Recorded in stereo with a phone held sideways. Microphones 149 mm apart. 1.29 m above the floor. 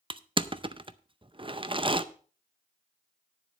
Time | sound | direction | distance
0.1 | crushing | 35° right (ahead or behind) | 0.6 m